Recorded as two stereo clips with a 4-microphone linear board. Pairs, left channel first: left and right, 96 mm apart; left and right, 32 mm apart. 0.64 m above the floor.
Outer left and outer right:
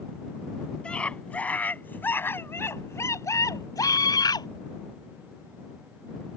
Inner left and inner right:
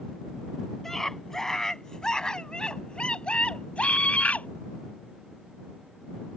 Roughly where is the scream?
Centre.